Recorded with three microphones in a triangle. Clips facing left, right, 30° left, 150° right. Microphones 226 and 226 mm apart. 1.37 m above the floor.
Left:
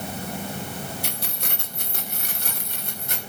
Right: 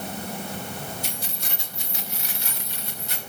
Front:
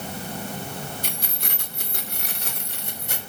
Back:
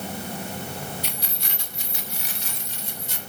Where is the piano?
I don't hear a piano.